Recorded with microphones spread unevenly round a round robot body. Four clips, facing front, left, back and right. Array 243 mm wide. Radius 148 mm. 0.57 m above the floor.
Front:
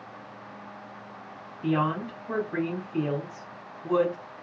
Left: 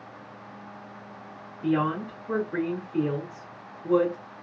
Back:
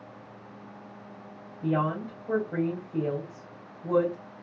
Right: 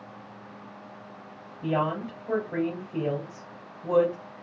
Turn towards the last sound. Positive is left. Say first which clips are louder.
# left 2 dB, front 1 dB
turn(degrees=-130)